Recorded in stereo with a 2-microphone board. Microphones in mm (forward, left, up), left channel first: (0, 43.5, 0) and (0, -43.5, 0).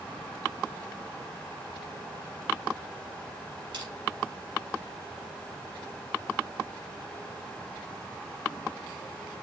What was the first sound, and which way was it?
Crushing, 60° right (ahead or behind).